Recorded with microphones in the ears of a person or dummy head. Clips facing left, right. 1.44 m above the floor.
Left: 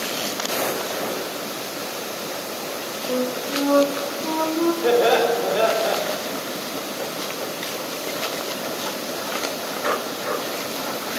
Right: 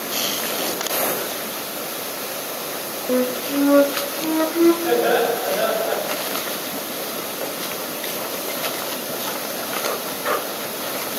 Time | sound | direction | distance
3.1 | a flute | 25° right (ahead or behind) | 0.7 m
4.8 | laughter | 85° left | 4 m